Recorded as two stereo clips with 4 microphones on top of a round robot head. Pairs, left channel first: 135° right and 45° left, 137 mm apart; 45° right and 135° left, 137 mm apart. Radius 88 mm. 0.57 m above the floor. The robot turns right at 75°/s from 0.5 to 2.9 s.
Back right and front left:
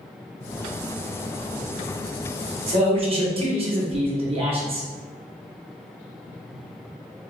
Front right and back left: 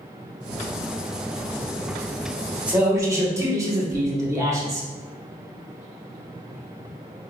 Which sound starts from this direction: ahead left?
A man speaking, at 2.7 s.